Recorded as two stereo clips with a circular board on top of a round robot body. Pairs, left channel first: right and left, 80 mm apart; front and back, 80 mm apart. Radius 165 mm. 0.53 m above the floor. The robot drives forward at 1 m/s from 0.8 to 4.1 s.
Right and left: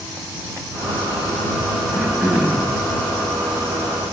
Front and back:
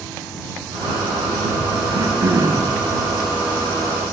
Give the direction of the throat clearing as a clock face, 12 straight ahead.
6 o'clock.